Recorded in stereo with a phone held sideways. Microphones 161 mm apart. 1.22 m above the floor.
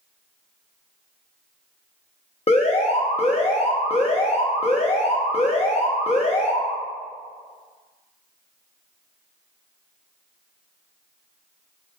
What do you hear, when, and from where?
2.5 s an alarm: 40° left (ahead or behind), 0.8 m